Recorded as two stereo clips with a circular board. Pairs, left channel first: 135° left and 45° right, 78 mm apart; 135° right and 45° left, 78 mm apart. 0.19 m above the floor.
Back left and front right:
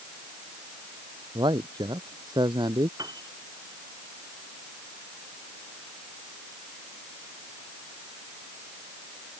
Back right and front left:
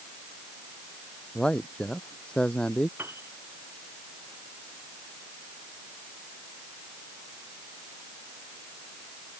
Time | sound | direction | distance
1.4 | a man speaking | 55° right | ?
3.0 | a piano | 15° right | ?